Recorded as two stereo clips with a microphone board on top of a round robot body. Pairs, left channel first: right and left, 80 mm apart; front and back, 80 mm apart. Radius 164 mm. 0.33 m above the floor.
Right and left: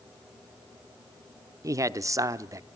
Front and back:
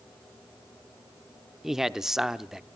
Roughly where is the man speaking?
Left.